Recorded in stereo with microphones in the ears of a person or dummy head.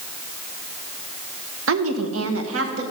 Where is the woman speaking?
75° right (ahead or behind), 1.4 m; by 2.8 s 80° right, 1.9 m.